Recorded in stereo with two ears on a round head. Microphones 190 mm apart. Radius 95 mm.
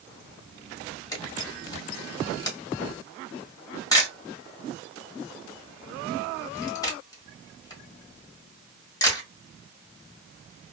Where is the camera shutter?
20° left (ahead or behind), 1.1 m.